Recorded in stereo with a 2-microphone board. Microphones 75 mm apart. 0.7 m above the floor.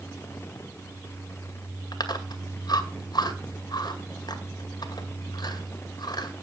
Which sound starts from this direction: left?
Chewing, at 1.9 s.